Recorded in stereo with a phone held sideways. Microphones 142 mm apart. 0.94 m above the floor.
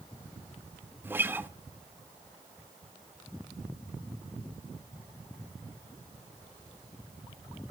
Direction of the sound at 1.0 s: 15° right (ahead or behind).